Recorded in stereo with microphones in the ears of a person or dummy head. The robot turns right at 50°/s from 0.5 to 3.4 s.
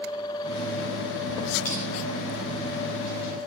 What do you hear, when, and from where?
1.6 s crushing: 45° left (ahead or behind), 3 m; by 1.8 s 35° left (ahead or behind), 3 m